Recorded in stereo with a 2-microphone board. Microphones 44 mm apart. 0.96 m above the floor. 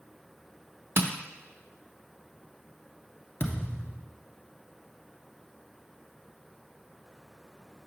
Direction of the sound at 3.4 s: 55° left (ahead or behind).